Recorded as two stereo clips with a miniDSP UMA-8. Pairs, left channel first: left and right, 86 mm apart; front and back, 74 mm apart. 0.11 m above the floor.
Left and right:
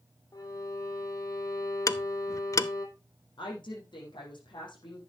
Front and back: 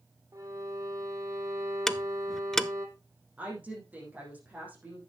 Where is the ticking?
85° left, 0.5 m.